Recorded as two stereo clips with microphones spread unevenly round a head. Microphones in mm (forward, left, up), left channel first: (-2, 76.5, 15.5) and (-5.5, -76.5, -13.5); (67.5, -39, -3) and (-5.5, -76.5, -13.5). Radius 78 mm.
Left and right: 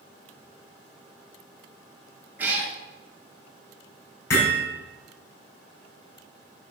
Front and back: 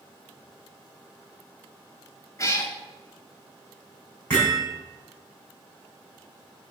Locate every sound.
2.4 s a cat meowing: 5° right, 2 m
4.3 s hammering: 105° left, 5 m